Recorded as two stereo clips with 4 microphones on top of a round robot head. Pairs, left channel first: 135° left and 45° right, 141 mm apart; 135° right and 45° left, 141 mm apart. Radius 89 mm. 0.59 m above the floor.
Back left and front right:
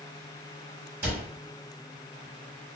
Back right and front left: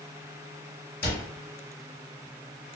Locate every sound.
1.0 s a cupboard door: 120° right, 2 m